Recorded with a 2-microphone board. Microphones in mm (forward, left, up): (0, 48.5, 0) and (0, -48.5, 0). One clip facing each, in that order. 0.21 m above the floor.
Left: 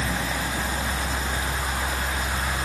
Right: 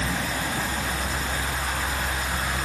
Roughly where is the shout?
I don't hear a shout.